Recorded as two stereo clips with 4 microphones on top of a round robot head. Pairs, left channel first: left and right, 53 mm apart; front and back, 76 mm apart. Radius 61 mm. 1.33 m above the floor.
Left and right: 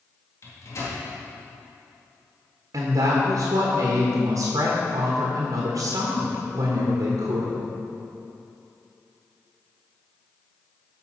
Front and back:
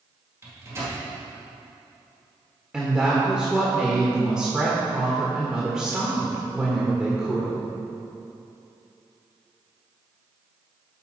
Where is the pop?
I don't hear a pop.